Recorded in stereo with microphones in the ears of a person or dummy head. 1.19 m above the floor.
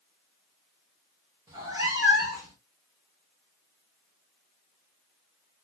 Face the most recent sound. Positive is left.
turn(degrees=-15)  # may be behind; listen again after turning